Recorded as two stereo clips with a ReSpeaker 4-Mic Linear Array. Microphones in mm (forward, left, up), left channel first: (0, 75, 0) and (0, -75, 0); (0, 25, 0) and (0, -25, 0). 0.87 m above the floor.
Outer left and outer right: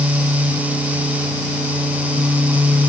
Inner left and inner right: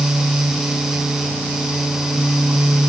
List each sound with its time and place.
Only background noise.